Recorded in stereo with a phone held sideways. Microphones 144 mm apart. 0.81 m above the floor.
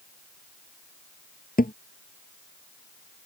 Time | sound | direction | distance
1.6 | a thud | 85° left | ?